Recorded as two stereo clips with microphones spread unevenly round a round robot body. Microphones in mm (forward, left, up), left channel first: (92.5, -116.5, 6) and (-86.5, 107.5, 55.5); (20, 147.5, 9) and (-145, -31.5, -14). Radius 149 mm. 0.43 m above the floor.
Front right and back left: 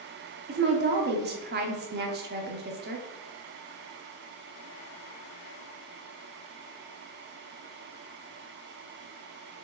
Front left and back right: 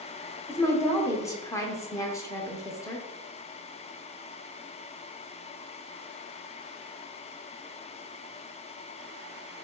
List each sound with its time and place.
0.5 s a woman speaking: 120° left, 0.7 m